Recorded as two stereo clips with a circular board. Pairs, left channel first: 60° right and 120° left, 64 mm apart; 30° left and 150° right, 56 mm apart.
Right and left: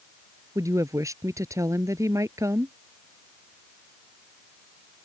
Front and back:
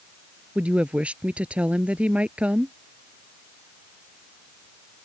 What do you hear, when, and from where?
0.6 s a woman speaking: 145° left